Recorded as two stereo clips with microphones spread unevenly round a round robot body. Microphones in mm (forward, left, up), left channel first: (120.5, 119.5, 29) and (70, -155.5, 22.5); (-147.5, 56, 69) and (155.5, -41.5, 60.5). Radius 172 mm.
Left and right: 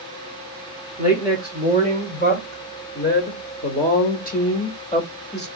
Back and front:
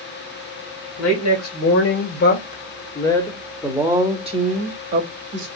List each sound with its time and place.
1.0 s a woman speaking: 140° left, 1.7 m; by 5.5 s 20° left, 1.7 m